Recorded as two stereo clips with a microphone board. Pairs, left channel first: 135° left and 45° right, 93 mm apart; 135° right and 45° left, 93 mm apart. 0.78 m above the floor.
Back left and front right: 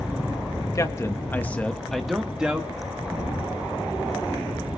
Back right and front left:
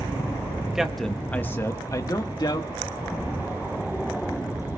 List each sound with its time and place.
0.8 s a man speaking: 125° left, 1.2 m; by 2.7 s 120° right, 1.6 m